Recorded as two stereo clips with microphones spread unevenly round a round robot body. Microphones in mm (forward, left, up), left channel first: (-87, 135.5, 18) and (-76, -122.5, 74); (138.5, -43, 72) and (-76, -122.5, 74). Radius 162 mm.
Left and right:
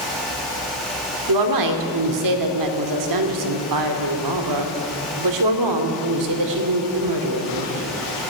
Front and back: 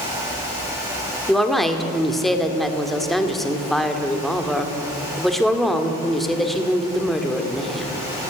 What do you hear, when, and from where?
1.3 s a woman speaking: 70° right, 2.5 m